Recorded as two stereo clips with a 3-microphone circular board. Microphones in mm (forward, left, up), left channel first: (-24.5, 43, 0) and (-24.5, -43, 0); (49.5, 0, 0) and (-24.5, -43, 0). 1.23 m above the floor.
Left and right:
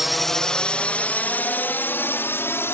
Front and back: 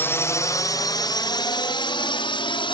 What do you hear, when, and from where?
0.0 s a drone: 5° right; by 2.7 s 30° left